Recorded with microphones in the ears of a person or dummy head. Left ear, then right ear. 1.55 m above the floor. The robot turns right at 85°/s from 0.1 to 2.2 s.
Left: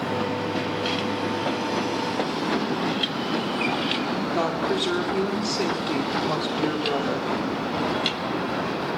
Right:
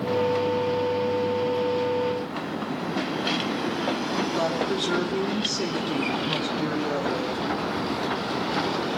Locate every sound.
4.3 s a woman speaking: 20° left (ahead or behind), 4 m